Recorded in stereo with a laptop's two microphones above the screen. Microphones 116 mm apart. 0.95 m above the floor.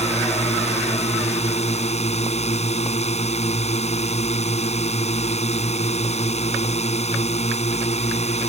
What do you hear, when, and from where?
0.0 s a drone: 80° left